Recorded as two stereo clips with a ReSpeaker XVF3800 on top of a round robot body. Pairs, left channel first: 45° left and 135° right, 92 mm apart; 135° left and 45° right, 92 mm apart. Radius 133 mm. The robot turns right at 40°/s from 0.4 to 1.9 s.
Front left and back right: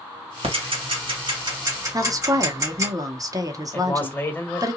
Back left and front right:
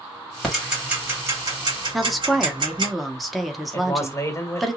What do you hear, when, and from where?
0.4 s ticking: 140° right, 1.8 m; by 2.9 s 80° right, 1.8 m
1.9 s a woman speaking: 135° right, 1.0 m
3.7 s a man speaking: 100° left, 1.3 m